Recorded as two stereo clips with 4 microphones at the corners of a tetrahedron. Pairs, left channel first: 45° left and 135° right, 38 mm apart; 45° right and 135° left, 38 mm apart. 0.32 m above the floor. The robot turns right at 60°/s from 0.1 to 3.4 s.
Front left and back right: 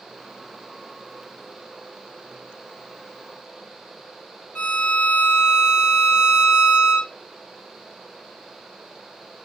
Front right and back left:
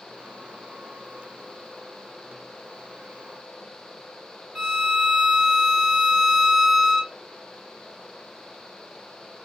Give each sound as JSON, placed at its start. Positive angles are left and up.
{"t": 4.5, "sound": "a violin", "azimuth_deg": 85, "distance_m": 2.5}